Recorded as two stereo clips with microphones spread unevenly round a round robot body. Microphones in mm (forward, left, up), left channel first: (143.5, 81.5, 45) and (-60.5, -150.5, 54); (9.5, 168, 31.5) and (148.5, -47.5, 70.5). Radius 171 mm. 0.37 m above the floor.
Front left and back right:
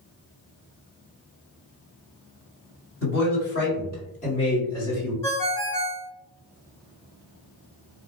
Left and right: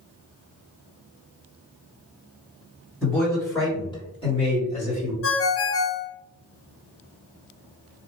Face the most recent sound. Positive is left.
turn(degrees=130)